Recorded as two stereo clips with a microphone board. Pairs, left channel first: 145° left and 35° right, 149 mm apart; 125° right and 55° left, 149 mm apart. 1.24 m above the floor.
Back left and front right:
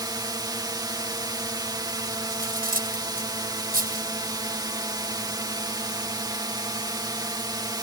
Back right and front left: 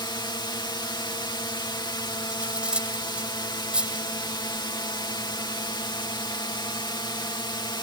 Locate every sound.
0.0 s a drone: 80° right
2.3 s cutlery clinking: 25° right